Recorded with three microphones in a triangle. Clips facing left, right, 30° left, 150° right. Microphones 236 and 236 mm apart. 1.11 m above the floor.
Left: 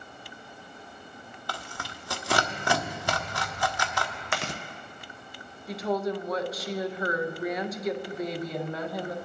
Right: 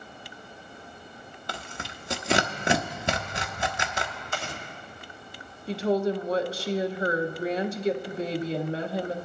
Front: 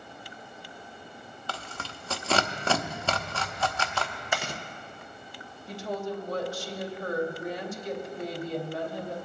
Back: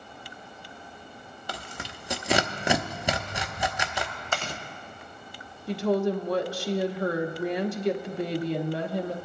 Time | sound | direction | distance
1.5 | tearing paper | 100° right | 0.6 m
4.3 | chewing | 105° left | 0.8 m
5.7 | a woman speaking | 150° right | 0.8 m